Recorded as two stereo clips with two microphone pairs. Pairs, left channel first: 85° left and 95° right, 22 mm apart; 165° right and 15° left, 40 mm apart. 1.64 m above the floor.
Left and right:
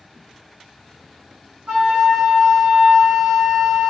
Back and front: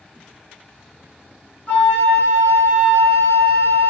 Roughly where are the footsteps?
No footsteps in this recording.